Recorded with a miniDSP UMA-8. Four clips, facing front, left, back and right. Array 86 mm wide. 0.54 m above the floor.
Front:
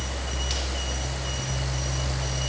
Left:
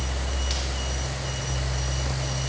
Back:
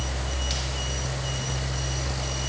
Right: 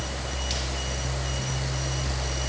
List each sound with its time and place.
Only background noise.